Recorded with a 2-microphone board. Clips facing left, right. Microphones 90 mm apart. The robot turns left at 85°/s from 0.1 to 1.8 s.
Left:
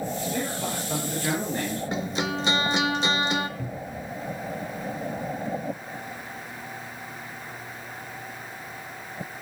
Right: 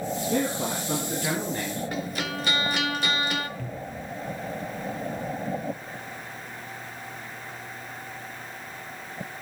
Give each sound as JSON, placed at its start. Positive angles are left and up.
{"t": 0.3, "sound": "a man speaking", "azimuth_deg": -90, "distance_m": 5.0}
{"t": 1.9, "sound": "a guitar", "side_deg": 20, "distance_m": 1.1}
{"t": 3.6, "sound": "a cupboard door", "side_deg": 10, "distance_m": 1.0}